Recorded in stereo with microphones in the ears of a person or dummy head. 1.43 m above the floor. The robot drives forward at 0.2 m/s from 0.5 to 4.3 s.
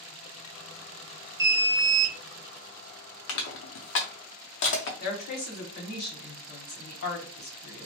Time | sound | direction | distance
1.4 | an alarm | 15° right (ahead or behind) | 0.6 m
3.3 | crushing | 60° left (ahead or behind) | 0.6 m
5.0 | a woman speaking | 50° left (ahead or behind) | 1.0 m